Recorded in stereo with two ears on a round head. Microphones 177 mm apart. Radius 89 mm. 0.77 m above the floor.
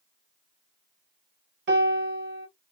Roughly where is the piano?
Right.